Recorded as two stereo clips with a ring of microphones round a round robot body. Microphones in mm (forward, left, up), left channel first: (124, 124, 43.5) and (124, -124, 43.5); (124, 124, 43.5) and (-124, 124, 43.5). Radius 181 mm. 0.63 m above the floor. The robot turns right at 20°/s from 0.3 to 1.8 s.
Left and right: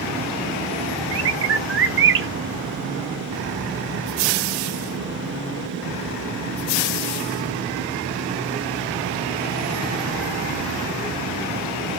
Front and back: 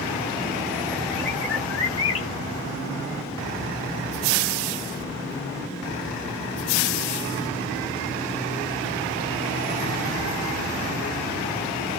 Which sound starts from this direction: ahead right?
A bird, at 1.1 s.